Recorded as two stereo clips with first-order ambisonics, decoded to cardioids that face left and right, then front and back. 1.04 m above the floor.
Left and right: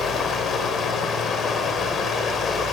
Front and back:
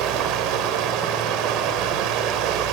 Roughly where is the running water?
Behind left.